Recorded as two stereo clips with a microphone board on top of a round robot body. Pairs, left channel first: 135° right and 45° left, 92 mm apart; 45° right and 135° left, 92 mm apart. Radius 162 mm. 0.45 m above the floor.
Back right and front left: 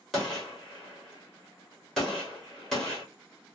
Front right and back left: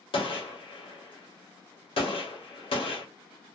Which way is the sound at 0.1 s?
50° right.